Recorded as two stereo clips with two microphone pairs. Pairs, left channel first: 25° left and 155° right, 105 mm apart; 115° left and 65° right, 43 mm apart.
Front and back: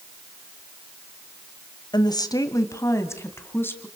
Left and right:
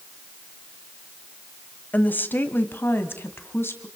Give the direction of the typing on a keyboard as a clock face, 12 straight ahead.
I don't hear typing on a keyboard.